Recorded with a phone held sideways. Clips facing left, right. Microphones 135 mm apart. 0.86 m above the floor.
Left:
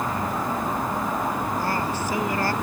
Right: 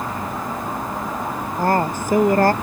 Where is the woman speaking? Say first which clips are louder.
Right 6 dB; 50° right (ahead or behind).